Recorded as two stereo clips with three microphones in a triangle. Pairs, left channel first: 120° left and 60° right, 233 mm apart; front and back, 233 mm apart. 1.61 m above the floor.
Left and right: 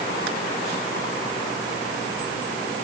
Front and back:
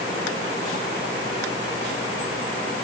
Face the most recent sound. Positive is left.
No sound to turn to.